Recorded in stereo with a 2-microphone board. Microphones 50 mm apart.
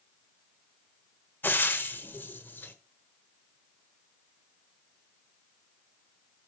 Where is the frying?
40° left (ahead or behind), 1.0 m.